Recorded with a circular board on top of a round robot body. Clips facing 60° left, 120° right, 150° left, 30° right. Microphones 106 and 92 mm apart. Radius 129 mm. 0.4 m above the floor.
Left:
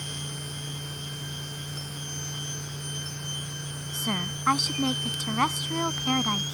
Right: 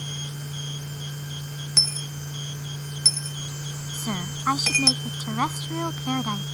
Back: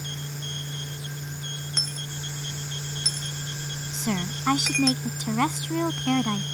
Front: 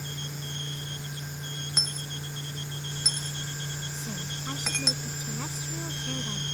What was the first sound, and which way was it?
A dropped coin, 110° right.